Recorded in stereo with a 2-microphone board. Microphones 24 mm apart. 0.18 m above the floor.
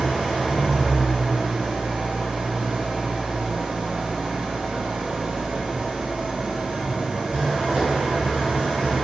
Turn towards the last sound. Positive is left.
turn(degrees=-80)